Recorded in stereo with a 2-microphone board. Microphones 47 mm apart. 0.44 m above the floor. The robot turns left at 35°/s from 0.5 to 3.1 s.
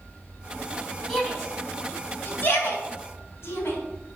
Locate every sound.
1.1 s a shout: centre (ahead or behind), 4 m; by 3.8 s 65° left (ahead or behind), 4 m